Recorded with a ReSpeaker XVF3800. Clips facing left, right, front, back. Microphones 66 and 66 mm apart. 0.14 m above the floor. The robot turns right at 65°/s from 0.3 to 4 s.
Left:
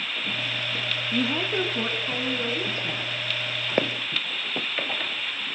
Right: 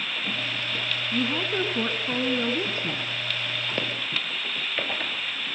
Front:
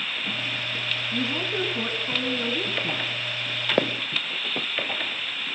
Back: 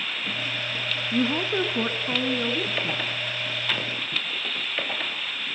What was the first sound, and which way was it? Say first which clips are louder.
A woman speaking: left 1 dB, back 5 dB; 155° left.